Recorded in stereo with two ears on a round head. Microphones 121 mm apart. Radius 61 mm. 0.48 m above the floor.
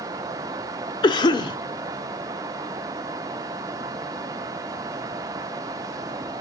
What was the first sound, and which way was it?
A cough, 35° left (ahead or behind).